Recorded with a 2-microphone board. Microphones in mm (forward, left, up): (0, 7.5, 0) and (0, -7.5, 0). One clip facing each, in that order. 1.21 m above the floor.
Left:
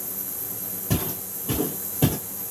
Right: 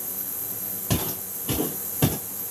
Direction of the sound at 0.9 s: 40° right (ahead or behind).